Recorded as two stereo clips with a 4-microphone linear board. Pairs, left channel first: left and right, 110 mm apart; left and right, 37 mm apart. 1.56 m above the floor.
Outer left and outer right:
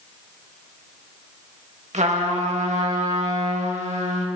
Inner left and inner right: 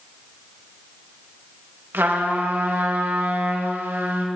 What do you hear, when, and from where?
1.9 s a trumpet: 75° right (ahead or behind), 2.5 m